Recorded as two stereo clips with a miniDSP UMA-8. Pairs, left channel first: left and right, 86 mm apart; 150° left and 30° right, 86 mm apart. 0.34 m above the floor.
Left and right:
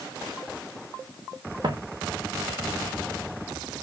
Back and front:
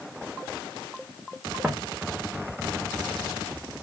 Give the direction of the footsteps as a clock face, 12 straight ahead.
4 o'clock.